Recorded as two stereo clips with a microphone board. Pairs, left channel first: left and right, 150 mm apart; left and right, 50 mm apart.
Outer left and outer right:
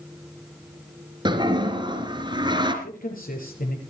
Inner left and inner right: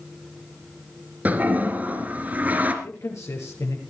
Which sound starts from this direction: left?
A man speaking, at 2.8 s.